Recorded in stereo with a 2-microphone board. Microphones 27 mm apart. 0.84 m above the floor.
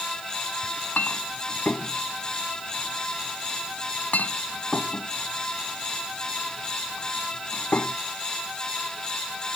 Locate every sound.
0.6 s a clink: 75° left (ahead or behind)